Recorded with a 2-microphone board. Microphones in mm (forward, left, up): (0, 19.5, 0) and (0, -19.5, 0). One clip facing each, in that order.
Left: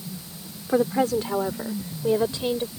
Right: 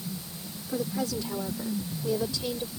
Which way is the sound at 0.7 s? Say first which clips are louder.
Left 9 dB; 45° left (ahead or behind).